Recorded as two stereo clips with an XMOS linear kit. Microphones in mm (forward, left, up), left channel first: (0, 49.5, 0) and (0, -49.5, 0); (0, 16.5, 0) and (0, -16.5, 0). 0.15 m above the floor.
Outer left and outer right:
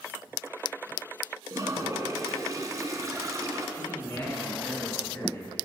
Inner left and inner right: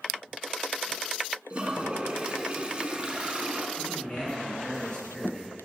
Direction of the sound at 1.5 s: 35° right (ahead or behind).